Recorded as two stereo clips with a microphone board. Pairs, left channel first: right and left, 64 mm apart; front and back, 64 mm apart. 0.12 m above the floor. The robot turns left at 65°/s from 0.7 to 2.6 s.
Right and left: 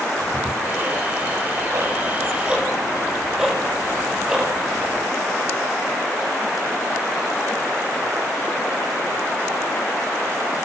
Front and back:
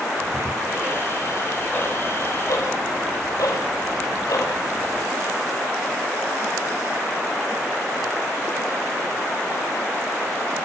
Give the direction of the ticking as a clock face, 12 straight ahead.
8 o'clock.